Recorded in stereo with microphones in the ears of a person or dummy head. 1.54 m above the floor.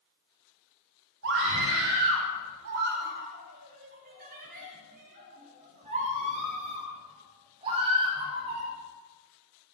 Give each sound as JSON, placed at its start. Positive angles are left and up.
{"t": 1.2, "sound": "a scream", "side_deg": -70, "distance_m": 5.5}